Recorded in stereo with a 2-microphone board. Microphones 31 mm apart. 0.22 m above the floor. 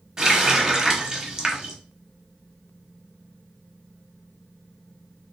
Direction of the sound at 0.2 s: 15° right (ahead or behind).